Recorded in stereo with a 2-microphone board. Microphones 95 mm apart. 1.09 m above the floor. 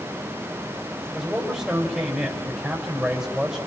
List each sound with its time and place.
1.1 s a man speaking: 5° right (ahead or behind), 6 m